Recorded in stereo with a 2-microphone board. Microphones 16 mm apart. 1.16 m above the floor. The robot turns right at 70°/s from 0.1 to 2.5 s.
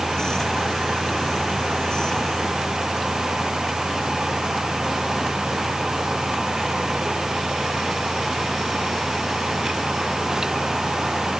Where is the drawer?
No drawer in this recording.